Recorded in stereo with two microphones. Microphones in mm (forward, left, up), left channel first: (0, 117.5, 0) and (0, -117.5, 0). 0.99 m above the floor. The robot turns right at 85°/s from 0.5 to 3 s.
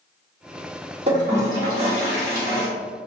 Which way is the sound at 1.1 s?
150° right.